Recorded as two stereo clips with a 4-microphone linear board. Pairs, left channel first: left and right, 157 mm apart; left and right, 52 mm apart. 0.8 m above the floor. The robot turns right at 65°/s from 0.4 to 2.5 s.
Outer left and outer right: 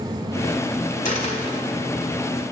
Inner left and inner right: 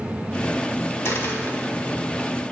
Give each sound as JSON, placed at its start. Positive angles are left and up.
{"t": 1.1, "sound": "a dropped coin", "side_deg": 60, "distance_m": 1.5}